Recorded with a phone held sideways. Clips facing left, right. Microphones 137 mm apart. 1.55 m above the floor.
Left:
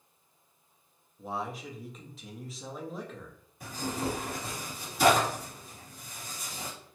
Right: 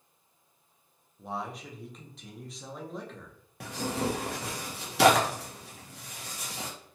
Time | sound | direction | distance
1.2 | a man speaking | centre (ahead or behind) | 0.6 m
3.6 | tearing paper | 75° right (ahead or behind) | 0.6 m